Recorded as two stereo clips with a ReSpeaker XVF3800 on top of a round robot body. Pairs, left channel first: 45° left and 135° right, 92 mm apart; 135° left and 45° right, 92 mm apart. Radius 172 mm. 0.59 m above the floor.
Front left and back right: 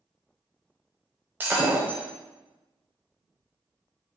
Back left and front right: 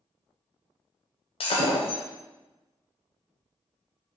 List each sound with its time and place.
1.4 s breaking glass: 155° left, 0.8 m